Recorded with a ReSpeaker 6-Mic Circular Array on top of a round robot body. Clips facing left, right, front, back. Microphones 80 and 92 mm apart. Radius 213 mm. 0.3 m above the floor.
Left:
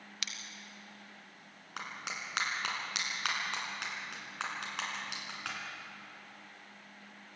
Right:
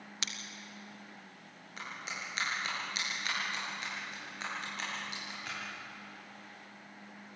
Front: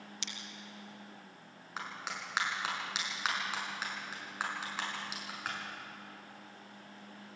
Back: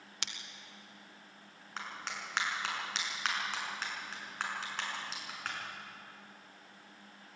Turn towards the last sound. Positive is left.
turn(degrees=80)